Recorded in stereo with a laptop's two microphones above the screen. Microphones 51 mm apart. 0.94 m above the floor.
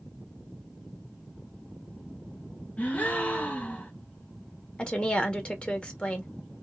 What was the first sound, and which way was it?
A gasp, 30° left (ahead or behind).